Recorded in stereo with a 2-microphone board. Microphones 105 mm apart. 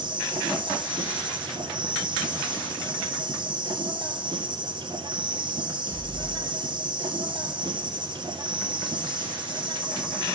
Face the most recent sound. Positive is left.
turn(degrees=-45)  # may be behind; listen again after turning